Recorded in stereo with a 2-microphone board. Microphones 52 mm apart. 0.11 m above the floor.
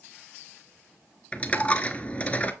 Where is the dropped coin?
25° left (ahead or behind), 0.7 m.